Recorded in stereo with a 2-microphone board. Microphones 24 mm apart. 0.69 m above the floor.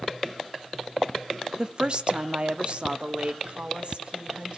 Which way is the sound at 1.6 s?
35° right (ahead or behind).